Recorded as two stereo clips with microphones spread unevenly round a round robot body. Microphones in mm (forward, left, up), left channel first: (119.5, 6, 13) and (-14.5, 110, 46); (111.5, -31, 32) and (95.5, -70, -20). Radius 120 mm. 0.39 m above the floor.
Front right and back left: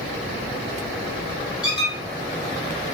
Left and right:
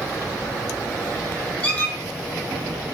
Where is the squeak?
30° left, 1.6 m.